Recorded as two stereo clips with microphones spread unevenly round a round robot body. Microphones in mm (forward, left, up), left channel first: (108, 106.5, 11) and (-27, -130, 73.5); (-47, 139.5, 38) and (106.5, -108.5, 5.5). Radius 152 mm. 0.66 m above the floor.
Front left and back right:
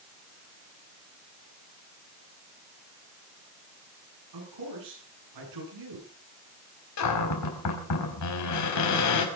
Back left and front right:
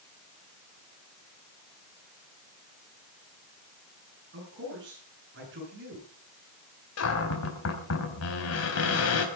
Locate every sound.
4.3 s a man speaking: 115° right, 10 m
7.0 s a cupboard door: 80° left, 4 m